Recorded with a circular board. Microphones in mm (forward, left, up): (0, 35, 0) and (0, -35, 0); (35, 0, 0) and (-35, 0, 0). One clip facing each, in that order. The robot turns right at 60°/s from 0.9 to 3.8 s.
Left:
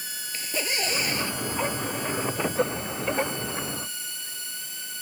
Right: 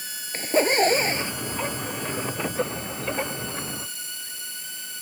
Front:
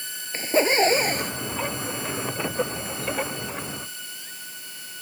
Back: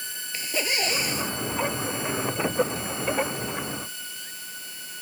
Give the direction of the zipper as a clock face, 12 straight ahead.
2 o'clock.